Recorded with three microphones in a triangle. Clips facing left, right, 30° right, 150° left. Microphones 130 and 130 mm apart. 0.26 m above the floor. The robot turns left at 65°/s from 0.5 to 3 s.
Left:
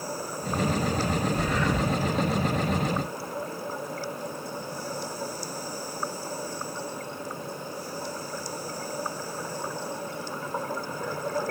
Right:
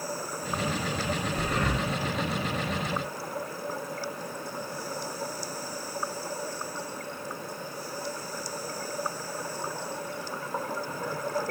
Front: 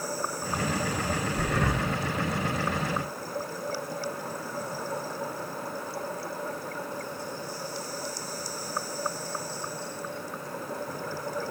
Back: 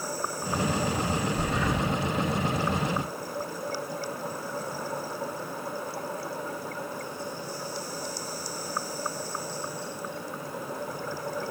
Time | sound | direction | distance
1.4 | breathing | 35° right | 3.5 m